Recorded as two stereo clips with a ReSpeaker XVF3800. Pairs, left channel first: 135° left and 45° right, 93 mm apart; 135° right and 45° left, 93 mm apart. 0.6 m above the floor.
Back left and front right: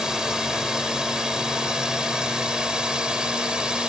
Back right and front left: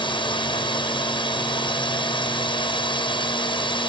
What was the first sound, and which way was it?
A drone, 130° right.